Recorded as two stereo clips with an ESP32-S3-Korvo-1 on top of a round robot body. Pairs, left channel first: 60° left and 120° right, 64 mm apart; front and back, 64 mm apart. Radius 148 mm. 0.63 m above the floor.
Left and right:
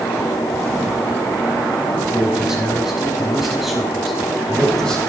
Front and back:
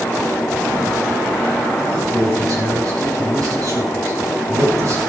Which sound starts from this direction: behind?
A man speaking, at 1.9 s.